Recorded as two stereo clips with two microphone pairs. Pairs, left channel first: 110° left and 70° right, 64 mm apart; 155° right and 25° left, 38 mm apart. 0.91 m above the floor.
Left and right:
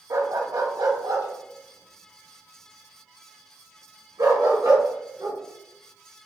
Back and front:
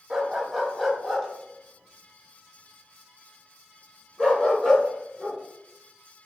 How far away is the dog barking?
About 1.3 m.